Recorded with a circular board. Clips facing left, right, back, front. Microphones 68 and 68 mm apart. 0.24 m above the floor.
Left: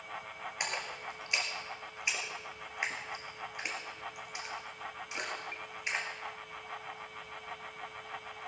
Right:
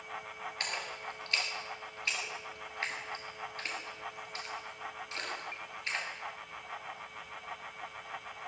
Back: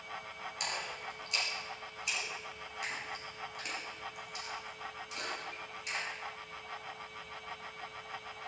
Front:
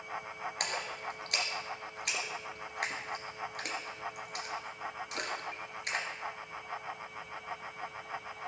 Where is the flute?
No flute in this recording.